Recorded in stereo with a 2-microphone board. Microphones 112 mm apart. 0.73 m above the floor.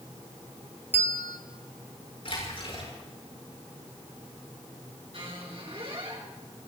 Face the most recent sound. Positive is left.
turn(degrees=-55)  # may be behind; listen again after turning